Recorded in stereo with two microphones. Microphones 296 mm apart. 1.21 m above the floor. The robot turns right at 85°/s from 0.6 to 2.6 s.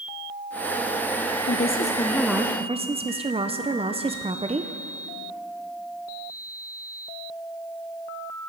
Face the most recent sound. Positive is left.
turn(degrees=-150)